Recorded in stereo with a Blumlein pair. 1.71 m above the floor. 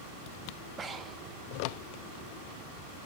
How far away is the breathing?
About 0.8 m.